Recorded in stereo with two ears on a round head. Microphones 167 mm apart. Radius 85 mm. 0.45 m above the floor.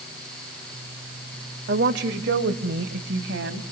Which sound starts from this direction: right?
A woman speaking, at 1.7 s.